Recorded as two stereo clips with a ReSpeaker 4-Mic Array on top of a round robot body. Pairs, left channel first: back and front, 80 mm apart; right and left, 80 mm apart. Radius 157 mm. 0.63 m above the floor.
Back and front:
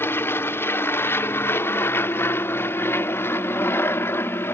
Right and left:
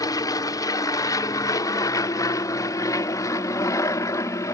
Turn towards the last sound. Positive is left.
turn(degrees=-125)